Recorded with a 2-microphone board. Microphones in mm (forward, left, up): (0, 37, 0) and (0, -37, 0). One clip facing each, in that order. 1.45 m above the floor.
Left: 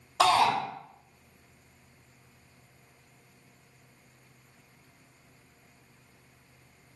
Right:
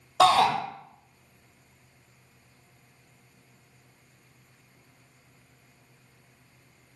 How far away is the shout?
About 0.8 m.